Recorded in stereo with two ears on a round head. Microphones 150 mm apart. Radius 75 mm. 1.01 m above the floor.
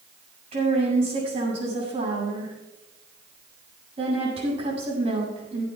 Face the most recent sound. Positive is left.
turn(degrees=-35)  # may be behind; listen again after turning